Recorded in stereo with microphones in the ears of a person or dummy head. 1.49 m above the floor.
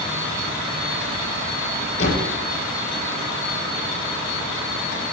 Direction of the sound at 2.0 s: 45° left (ahead or behind).